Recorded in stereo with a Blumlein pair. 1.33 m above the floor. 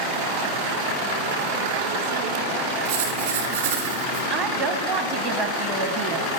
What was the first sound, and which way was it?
Writing, 55° right.